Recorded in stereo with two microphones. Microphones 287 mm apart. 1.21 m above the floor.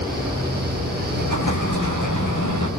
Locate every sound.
1.1 s an explosion: 75° left (ahead or behind), 5.5 m